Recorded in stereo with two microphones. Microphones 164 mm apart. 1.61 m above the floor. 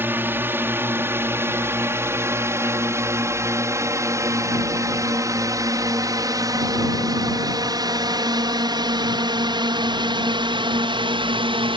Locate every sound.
0.0 s a drone: 15° right (ahead or behind); by 11.8 s 35° right (ahead or behind)